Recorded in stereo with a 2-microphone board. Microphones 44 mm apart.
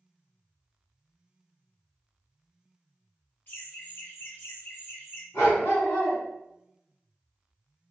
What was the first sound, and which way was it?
Laughter, 45° left (ahead or behind).